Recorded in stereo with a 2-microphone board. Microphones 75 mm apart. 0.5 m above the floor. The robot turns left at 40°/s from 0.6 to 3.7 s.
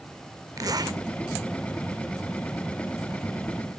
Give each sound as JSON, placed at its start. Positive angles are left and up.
{"t": 0.6, "sound": "a zipper", "side_deg": -50, "distance_m": 0.7}